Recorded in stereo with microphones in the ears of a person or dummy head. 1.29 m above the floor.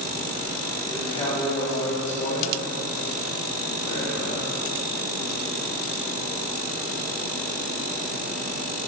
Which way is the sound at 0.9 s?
20° left (ahead or behind).